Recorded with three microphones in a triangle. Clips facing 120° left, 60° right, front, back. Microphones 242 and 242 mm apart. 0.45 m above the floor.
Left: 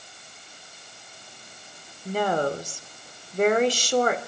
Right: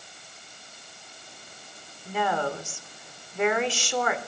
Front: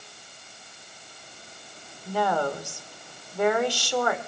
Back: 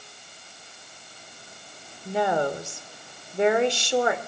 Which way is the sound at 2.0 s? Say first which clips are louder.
Left 4 dB, back 2 dB; 125° left.